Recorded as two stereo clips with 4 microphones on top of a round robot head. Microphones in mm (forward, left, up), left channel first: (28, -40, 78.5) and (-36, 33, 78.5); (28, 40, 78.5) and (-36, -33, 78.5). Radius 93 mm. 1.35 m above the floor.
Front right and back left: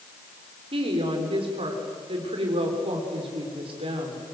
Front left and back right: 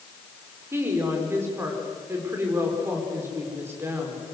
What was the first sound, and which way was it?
A woman speaking, 160° left.